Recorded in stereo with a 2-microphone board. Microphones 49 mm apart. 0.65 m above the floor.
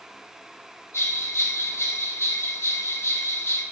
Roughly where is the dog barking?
No dog barking in this recording.